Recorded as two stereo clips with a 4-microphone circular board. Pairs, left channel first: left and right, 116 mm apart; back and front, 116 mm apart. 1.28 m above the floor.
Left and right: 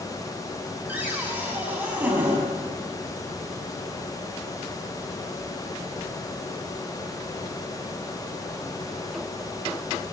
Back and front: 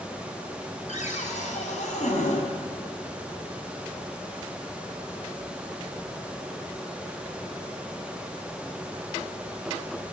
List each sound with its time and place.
0.9 s a cupboard door: 165° right, 6.5 m